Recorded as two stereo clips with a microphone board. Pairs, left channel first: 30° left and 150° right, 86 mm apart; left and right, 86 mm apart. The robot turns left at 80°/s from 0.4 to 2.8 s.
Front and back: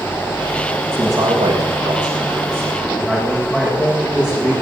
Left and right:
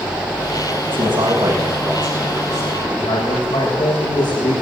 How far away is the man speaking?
About 7 m.